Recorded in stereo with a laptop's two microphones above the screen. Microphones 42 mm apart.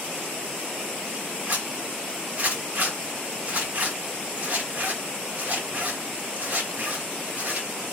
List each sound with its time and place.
1.5 s a zipper: 50° right (ahead or behind), 1.9 m